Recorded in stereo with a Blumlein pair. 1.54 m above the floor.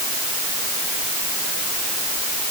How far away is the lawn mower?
I don't hear a lawn mower.